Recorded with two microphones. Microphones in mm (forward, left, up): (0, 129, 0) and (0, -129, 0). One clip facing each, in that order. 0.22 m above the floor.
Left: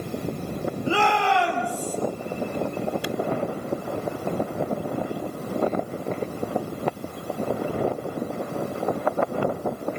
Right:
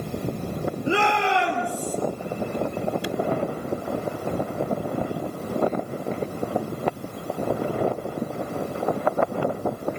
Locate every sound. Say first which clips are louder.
0.9 s a shout: even; 20° right (ahead or behind), 5 m; by 2.0 s 25° right (ahead or behind), 5.5 m